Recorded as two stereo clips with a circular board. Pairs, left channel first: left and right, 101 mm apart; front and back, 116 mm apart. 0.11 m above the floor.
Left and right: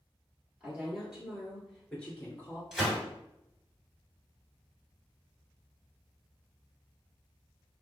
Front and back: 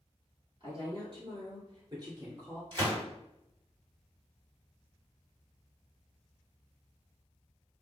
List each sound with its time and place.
0.6 s a woman speaking: 165° right, 1.6 m; by 2.6 s 140° left, 1.3 m
2.7 s a gunshot: 170° right, 2.0 m